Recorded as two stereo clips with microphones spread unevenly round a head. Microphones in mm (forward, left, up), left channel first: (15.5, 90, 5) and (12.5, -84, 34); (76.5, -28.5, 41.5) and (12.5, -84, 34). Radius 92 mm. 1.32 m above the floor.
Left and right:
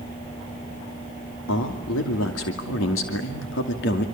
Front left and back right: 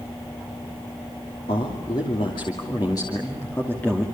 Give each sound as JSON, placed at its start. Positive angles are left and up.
{"t": 1.5, "sound": "a man speaking", "azimuth_deg": 85, "distance_m": 2.5}